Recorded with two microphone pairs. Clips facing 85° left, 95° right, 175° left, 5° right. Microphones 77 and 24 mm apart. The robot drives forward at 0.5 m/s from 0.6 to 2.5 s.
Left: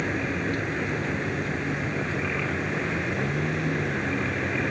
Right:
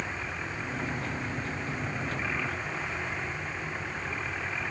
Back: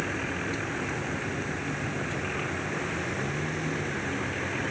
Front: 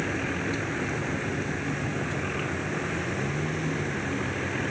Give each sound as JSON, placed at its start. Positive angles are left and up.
{"t": 0.0, "sound": "a vehicle", "azimuth_deg": 75}